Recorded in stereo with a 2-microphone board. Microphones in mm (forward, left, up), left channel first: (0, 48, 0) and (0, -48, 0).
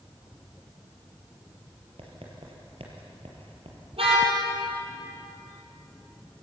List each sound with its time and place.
2.0 s writing: 80° right, 4 m
3.9 s a car horn: 80° right, 6 m